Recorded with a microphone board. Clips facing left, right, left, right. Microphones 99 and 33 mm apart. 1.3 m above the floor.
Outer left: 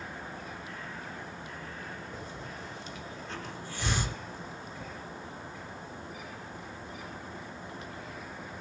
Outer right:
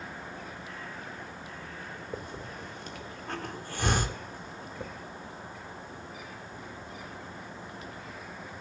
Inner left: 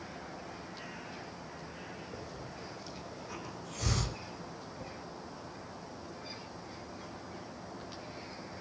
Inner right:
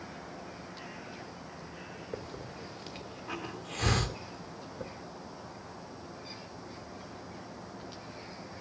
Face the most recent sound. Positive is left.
turn(degrees=-55)  # may be behind; listen again after turning